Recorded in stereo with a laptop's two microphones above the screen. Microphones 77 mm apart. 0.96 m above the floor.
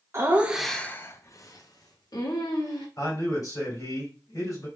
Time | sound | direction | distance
0.1 | laughter | 35° right (ahead or behind) | 0.6 m
3.0 | a man speaking | 55° left (ahead or behind) | 2.5 m